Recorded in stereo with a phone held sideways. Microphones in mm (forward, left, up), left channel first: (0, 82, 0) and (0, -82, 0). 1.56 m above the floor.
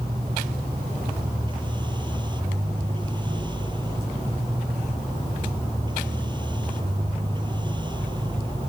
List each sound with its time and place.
0.0 s a machine running: 30° right (ahead or behind)